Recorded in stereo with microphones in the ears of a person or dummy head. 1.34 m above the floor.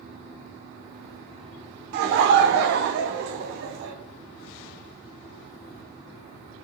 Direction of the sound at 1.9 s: 55° right (ahead or behind).